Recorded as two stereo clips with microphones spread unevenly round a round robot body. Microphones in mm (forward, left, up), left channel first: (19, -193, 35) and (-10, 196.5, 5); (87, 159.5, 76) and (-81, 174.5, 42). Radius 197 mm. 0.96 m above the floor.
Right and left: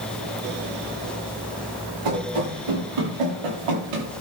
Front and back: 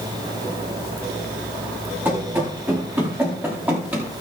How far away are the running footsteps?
About 7.5 m.